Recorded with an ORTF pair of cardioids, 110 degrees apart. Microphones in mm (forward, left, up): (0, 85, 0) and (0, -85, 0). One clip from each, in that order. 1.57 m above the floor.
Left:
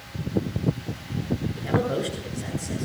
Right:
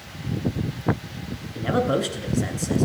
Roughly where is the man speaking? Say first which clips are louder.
Right 4 dB; ahead right.